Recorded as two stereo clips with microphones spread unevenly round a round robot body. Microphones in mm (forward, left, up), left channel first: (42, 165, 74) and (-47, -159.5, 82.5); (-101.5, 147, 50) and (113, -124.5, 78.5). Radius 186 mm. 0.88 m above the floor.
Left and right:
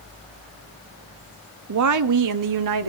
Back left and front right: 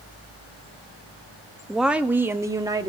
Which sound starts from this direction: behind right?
A woman speaking, at 1.7 s.